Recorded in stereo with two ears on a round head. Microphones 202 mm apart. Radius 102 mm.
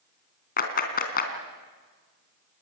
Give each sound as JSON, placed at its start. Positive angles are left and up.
{"t": 0.6, "sound": "a clap", "side_deg": 40, "distance_m": 3.0}